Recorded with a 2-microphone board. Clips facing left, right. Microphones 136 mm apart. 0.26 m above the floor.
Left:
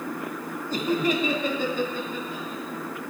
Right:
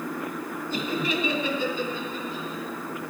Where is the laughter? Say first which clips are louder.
Left 4 dB; 40° left (ahead or behind), 1.6 m; by 2.6 s 55° left (ahead or behind), 2.5 m.